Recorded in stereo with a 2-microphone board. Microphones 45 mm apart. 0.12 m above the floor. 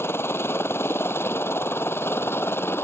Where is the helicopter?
60° left (ahead or behind).